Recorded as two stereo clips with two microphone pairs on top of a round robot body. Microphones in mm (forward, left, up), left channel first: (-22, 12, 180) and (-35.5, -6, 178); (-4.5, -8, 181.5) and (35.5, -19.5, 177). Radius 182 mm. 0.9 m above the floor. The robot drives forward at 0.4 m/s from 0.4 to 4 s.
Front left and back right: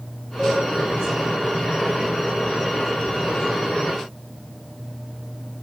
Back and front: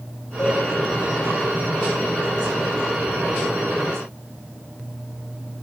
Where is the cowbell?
130° left, 6 m; by 0.6 s 135° left, 6 m.